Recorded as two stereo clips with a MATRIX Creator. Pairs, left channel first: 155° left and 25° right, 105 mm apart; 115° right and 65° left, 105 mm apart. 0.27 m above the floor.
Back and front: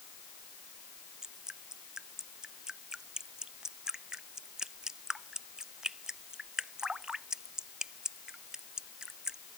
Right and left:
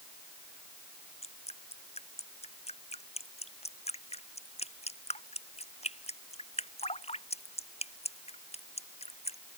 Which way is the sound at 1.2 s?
105° right.